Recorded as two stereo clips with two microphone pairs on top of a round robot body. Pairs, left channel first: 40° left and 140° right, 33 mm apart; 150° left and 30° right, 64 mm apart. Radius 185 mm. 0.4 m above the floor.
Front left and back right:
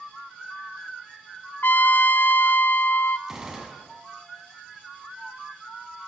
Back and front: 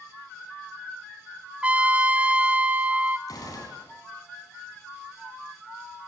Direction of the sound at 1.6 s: 45° left.